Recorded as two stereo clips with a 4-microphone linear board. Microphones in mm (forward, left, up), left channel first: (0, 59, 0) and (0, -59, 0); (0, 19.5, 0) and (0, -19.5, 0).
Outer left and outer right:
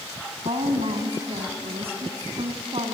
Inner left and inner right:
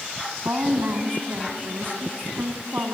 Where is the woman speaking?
55° right (ahead or behind), 3 m.